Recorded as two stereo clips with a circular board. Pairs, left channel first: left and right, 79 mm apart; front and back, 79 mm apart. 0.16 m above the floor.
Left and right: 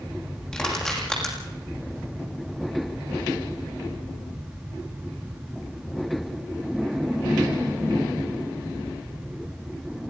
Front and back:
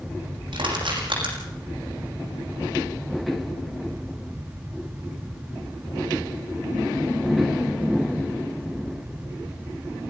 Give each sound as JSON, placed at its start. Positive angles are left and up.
{"t": 0.5, "sound": "crushing", "azimuth_deg": 170, "distance_m": 6.5}